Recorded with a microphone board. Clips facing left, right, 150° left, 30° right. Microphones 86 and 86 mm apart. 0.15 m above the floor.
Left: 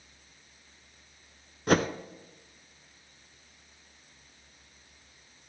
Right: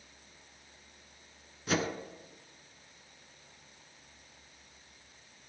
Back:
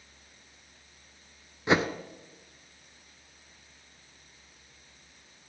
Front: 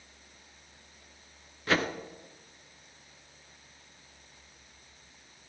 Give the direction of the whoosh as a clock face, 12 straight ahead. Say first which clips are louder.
Left 7 dB, back 3 dB; 9 o'clock.